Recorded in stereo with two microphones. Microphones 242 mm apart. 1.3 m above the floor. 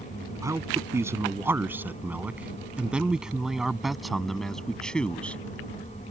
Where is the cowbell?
I don't hear a cowbell.